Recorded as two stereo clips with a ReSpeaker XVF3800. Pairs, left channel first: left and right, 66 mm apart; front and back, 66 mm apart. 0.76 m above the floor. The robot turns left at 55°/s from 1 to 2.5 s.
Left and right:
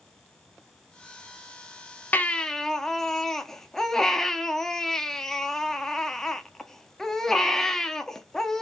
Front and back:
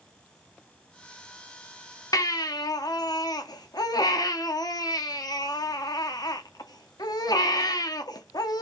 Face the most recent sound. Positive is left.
turn(degrees=5)